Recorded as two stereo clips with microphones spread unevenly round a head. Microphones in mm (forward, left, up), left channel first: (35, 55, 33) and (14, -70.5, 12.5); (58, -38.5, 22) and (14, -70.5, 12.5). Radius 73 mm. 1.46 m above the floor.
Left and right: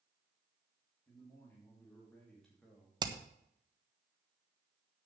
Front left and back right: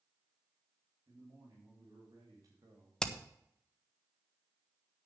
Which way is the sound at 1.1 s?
155° left.